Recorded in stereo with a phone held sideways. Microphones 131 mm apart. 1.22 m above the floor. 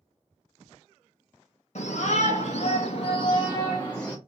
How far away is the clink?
I don't hear a clink.